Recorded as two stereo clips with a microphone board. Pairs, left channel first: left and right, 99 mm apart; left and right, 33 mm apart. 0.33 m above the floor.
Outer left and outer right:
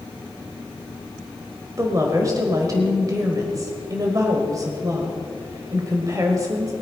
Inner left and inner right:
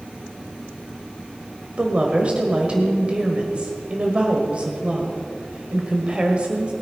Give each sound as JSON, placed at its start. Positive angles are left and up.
{"t": 1.8, "sound": "a woman speaking", "side_deg": -35, "distance_m": 1.6}